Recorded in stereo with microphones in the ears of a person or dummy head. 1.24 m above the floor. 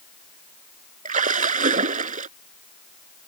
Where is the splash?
50° right (ahead or behind).